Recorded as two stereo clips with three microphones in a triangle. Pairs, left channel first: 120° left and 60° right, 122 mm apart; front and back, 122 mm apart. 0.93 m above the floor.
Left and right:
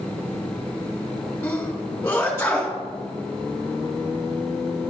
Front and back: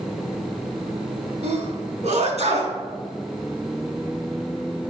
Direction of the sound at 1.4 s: 170° right.